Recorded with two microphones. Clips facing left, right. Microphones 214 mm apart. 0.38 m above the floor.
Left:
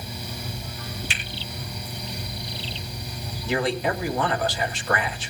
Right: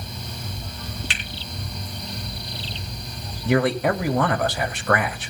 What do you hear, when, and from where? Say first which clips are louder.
1.1 s a finger snap: right 1 dB; 65° right (ahead or behind), 4.5 m
3.5 s a man speaking: right 5 dB; 55° right (ahead or behind), 2.5 m